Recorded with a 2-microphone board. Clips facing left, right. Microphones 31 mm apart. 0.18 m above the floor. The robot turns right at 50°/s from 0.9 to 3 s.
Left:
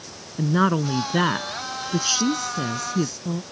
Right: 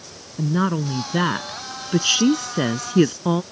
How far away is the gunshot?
No gunshot in this recording.